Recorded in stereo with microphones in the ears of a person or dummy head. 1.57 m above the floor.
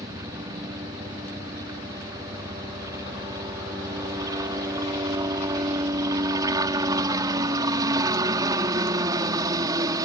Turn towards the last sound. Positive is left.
turn(degrees=-20)  # may be behind; listen again after turning